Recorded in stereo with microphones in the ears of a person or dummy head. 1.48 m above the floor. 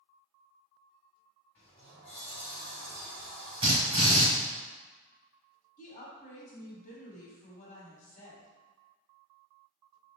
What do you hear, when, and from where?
1.6 s a sliding door: 10° left (ahead or behind), 0.9 m
3.6 s a drill: 20° right (ahead or behind), 1.9 m
5.8 s a woman speaking: 50° left (ahead or behind), 1.3 m